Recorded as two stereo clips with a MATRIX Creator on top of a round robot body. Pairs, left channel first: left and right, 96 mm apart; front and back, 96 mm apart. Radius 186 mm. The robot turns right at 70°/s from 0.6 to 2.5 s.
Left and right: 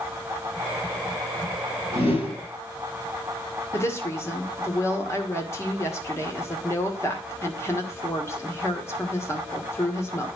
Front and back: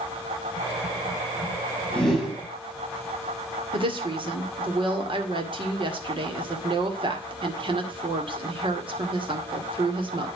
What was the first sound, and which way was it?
A whoosh, 80° left.